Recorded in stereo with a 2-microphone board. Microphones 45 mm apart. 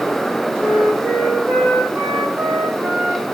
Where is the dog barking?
No dog barking in this recording.